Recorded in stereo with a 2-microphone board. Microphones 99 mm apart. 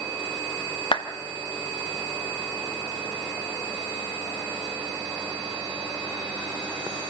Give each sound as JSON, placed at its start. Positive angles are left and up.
{"t": 0.9, "sound": "a clap", "side_deg": 55, "distance_m": 1.5}